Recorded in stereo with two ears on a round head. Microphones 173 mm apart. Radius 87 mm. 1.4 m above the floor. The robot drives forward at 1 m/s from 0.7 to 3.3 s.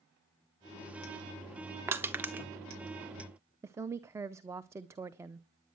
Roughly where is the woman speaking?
Centre.